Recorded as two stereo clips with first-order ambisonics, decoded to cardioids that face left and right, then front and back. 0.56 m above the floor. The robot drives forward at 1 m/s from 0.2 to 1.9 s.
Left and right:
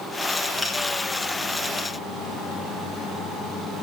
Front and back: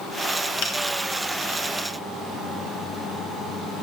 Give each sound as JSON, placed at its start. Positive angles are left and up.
{"t": 0.6, "sound": "a finger snap", "azimuth_deg": 0, "distance_m": 2.5}